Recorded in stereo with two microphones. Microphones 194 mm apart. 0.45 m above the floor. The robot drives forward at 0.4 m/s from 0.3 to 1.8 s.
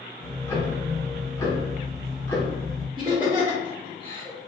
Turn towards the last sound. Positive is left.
turn(degrees=-25)  # may be behind; listen again after turning